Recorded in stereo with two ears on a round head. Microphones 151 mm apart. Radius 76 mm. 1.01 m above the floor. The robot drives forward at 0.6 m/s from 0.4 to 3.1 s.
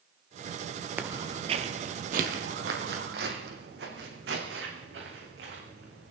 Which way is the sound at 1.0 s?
10° right (ahead or behind).